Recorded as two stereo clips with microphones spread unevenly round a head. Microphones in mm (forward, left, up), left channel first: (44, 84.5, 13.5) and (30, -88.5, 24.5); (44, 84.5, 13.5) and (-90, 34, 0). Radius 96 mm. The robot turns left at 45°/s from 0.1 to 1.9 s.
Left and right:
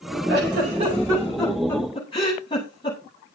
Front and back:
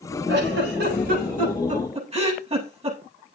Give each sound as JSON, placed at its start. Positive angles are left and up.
{"t": 0.3, "sound": "a giggle", "azimuth_deg": -135, "distance_m": 8.0}